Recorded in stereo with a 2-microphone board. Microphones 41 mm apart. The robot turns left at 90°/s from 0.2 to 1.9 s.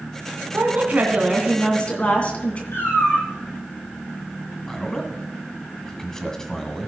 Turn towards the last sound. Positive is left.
turn(degrees=15)  # may be behind; listen again after turning